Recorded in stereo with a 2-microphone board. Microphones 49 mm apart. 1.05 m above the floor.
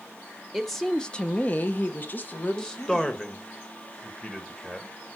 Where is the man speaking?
20° left (ahead or behind), 1.4 m.